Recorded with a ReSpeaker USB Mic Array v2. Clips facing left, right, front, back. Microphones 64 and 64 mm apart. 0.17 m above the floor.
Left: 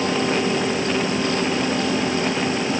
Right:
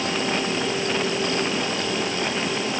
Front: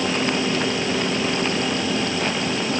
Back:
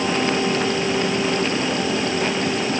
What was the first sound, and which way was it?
Only background noise.